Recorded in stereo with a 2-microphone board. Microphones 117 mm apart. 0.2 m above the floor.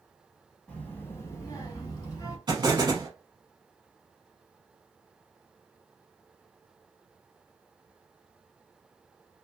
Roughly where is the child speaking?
Centre.